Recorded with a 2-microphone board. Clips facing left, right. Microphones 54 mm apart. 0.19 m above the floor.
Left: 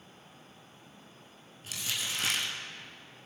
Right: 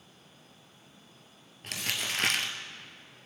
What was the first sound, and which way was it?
Crumpling, 60° right (ahead or behind).